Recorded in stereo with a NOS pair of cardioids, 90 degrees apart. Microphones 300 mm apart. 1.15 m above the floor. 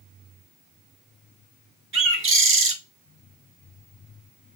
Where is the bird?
45° right, 1.5 m.